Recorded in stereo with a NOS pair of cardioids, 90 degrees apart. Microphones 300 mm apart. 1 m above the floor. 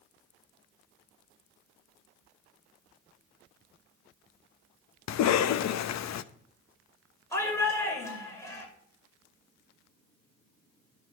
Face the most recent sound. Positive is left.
turn(degrees=10)